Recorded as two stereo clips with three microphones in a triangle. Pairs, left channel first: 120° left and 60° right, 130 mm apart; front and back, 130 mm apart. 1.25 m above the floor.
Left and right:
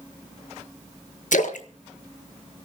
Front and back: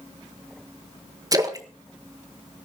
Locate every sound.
1.3 s a splash: 120° left, 1.5 m